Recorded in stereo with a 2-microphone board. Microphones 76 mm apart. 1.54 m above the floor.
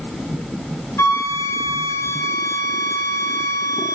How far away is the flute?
About 0.6 m.